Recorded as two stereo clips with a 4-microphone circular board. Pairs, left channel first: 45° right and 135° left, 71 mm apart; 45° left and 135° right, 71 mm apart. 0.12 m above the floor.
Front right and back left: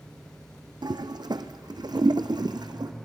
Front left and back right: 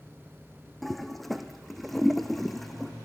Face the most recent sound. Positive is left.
turn(degrees=135)